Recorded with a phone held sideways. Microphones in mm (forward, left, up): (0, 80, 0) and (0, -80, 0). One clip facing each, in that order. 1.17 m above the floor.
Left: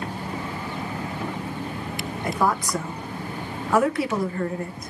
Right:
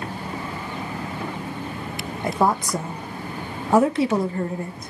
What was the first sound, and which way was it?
A woman speaking, 25° right (ahead or behind).